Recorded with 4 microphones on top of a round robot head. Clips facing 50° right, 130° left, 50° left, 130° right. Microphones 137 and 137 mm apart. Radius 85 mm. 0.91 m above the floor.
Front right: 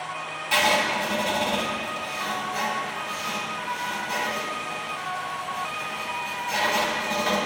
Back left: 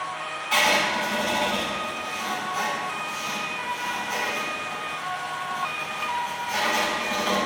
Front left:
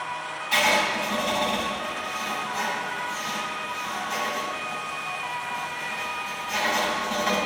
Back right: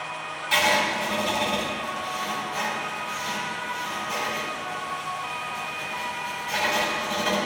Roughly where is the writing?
Right.